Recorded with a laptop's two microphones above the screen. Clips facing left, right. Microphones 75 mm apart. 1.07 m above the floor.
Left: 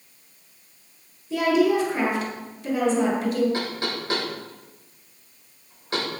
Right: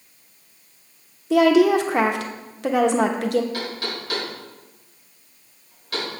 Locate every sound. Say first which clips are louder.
1.3 s a woman speaking: right 5 dB; 80° right, 1.0 m
3.5 s knocking: left 1 dB; 30° left (ahead or behind), 3.5 m